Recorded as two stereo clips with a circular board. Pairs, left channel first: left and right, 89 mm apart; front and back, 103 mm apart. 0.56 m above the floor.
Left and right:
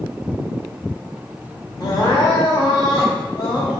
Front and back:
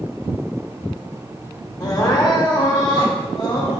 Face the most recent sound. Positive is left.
turn(degrees=45)